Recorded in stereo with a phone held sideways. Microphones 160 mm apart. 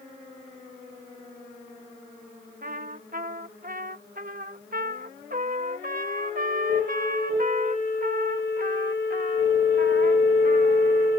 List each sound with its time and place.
2.6 s a trumpet: 60° right (ahead or behind)